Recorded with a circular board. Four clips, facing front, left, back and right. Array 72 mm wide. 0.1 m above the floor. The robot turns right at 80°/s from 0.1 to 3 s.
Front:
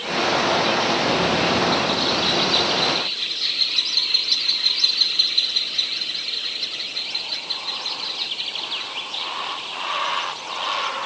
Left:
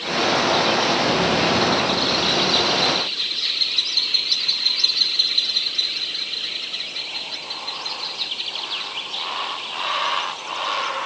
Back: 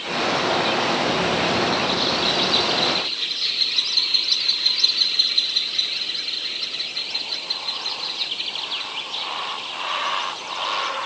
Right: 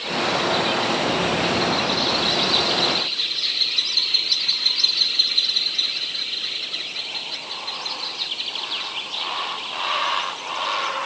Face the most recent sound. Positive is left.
No sound to turn to.